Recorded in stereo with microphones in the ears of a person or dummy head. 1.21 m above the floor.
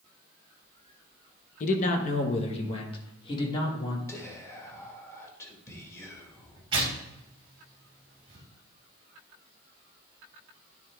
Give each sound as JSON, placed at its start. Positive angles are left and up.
{"t": 1.6, "sound": "a man speaking", "side_deg": 50, "distance_m": 1.2}
{"t": 4.1, "sound": "whispering", "side_deg": 15, "distance_m": 2.0}
{"t": 6.7, "sound": "tearing paper", "side_deg": -35, "distance_m": 2.5}